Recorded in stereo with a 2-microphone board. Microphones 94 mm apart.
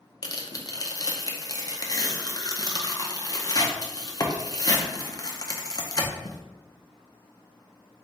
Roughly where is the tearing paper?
Left.